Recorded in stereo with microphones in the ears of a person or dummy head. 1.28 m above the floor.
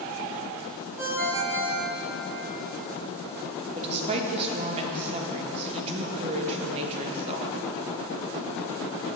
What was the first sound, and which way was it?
A ringtone, 20° right (ahead or behind).